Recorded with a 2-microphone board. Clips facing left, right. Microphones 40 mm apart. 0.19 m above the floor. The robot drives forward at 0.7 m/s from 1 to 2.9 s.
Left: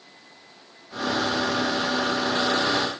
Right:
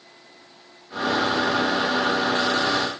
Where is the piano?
No piano in this recording.